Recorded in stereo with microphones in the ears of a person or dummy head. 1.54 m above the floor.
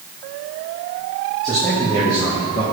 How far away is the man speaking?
About 2.5 m.